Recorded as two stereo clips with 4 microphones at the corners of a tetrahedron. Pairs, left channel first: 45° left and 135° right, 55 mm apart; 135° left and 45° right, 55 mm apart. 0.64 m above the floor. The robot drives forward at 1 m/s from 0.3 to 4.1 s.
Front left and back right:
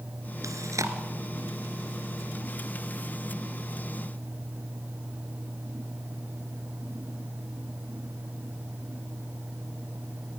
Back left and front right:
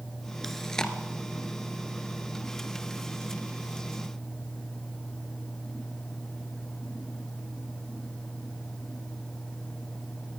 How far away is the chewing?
About 1.5 m.